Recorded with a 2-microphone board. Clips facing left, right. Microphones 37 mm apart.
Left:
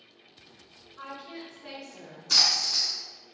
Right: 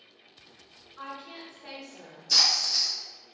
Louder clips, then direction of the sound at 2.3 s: Even; 55° left (ahead or behind).